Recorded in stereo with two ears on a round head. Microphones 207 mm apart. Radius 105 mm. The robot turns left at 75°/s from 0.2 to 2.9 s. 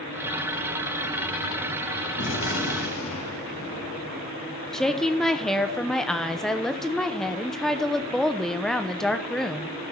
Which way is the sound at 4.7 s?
Centre (ahead or behind).